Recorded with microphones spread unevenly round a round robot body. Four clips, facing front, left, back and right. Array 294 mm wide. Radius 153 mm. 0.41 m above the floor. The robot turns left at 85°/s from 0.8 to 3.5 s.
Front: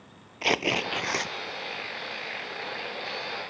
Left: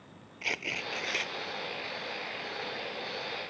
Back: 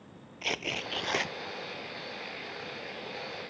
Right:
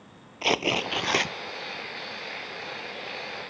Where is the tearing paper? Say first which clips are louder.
Right 12 dB, front 9 dB; 45° right; by 1.3 s 90° right.